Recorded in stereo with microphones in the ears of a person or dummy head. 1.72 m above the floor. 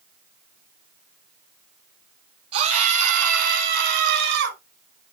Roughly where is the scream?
Right.